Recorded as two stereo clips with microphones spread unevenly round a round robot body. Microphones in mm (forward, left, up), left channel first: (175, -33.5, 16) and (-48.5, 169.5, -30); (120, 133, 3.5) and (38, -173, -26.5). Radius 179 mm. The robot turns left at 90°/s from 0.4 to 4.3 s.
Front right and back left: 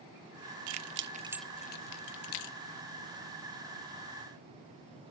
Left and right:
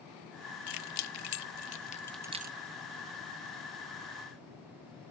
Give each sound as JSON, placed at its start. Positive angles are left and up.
{"t": 0.7, "sound": "keys jangling", "azimuth_deg": 120, "distance_m": 0.5}